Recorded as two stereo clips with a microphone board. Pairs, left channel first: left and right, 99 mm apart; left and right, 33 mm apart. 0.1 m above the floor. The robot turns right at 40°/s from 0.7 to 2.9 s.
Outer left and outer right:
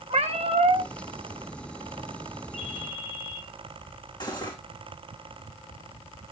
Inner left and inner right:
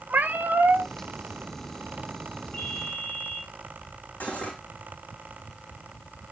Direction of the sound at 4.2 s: 50° left (ahead or behind).